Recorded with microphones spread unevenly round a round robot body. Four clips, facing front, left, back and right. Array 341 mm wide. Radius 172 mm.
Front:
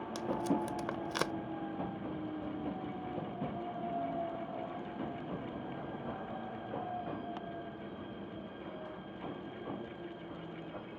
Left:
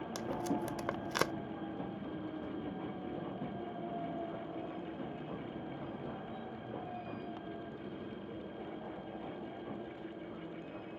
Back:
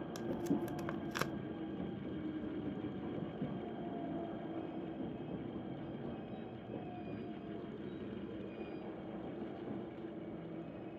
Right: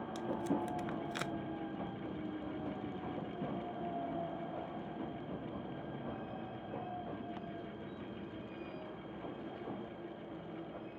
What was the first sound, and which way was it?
Tape being pulled, 90° left.